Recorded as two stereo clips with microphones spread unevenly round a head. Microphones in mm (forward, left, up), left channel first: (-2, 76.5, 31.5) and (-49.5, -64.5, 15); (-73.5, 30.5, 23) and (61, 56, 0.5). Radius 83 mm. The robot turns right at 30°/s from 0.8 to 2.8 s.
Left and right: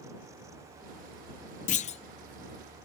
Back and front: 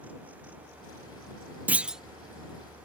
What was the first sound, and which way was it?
A clunk, 95° left.